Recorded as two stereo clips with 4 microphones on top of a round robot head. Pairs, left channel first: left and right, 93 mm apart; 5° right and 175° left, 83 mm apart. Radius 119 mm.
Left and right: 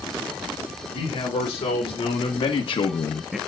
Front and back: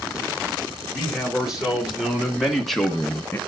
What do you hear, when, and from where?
0.9 s a man speaking: 95° left, 3.5 m; by 3.4 s 15° right, 0.6 m